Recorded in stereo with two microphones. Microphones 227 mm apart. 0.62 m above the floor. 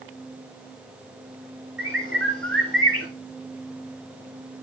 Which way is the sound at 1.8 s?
65° right (ahead or behind).